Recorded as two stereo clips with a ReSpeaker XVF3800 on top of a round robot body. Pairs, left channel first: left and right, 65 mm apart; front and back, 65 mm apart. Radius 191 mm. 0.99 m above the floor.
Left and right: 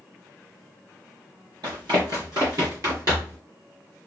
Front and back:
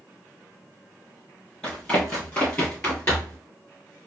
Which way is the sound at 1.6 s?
80° right.